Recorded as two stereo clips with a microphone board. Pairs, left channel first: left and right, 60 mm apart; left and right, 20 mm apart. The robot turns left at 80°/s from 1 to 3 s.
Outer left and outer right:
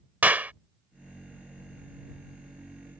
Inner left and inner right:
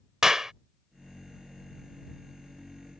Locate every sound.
0.2 s a clap: 30° right (ahead or behind)